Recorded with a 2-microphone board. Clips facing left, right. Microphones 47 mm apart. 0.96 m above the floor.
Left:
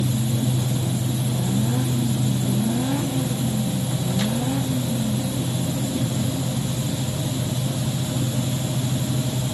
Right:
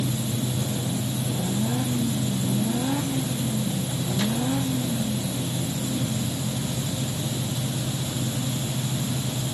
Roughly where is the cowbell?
No cowbell in this recording.